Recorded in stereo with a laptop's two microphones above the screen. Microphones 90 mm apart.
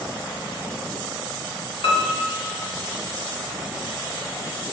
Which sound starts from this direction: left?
A piano, at 1.8 s.